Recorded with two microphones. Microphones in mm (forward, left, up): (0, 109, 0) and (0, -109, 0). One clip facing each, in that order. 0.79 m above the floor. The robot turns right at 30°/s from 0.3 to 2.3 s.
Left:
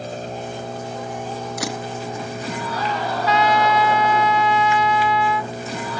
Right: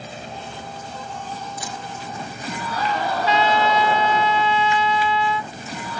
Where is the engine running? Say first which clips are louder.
Left 6 dB; 45° left; by 6.0 s 105° left.